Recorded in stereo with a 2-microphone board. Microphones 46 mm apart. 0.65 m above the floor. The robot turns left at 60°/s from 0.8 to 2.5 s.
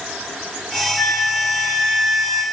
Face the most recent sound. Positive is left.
turn(degrees=-35)